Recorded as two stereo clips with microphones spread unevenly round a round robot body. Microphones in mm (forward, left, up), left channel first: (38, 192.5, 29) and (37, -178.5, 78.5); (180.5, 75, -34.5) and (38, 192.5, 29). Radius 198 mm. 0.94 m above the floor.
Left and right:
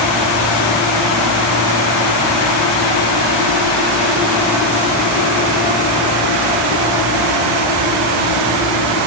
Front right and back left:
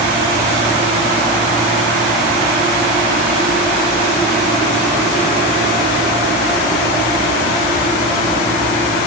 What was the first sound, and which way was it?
Only background noise.